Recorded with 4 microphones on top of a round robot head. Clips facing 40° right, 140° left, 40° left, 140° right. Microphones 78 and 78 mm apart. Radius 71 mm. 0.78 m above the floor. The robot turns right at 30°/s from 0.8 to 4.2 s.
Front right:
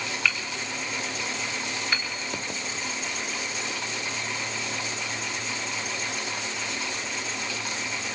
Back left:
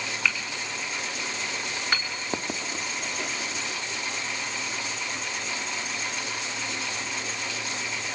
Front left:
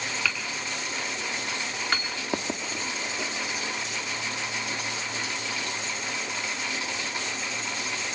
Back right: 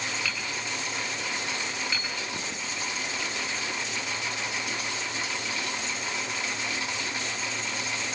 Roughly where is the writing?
Left.